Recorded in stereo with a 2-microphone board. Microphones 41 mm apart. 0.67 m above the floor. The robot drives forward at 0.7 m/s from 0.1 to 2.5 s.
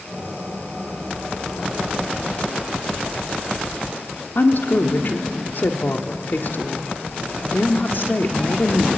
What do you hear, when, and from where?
4.3 s a woman speaking: 60° left (ahead or behind), 1.5 m